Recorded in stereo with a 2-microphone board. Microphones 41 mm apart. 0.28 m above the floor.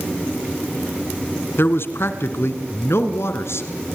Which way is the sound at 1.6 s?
60° left (ahead or behind).